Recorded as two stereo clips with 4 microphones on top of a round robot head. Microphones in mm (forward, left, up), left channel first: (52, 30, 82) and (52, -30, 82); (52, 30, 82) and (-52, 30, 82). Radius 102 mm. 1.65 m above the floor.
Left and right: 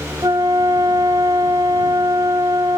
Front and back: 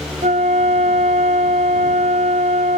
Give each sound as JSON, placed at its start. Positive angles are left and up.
{"t": 0.2, "sound": "a flute", "azimuth_deg": -145}